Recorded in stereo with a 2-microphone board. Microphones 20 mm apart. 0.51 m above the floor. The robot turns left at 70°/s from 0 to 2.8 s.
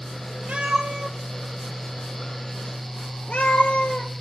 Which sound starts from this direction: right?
A cat meowing, at 0.5 s.